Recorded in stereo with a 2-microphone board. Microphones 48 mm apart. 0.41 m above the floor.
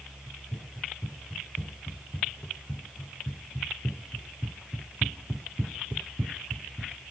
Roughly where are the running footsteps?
Left.